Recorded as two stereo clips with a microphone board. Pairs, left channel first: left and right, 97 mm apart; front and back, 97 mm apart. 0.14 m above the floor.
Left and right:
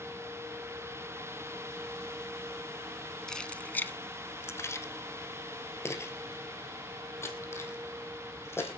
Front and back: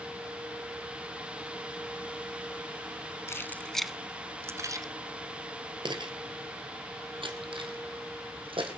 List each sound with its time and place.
3.3 s keys jangling: 15° left, 0.9 m; by 8.8 s 155° left, 4 m